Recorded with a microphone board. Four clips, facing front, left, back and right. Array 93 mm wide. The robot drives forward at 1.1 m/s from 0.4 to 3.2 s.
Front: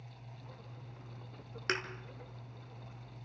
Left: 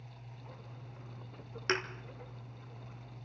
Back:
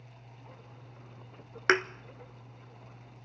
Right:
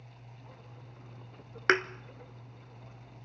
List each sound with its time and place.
1.7 s a thud: 135° right, 0.9 m; by 1.8 s 140° right, 1.0 m